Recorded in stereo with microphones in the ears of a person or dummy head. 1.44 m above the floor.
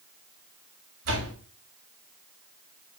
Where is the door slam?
75° right (ahead or behind), 5.5 m.